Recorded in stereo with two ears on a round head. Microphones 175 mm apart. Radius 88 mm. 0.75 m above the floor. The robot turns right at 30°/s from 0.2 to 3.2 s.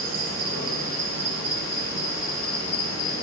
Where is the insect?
65° right, 1.7 m; by 3.2 s 25° left, 1.7 m.